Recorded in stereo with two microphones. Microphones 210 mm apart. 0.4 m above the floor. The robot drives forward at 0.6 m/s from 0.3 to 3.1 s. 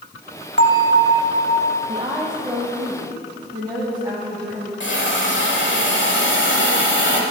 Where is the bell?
60° left (ahead or behind), 0.6 m; by 1.8 s 50° left (ahead or behind), 0.6 m.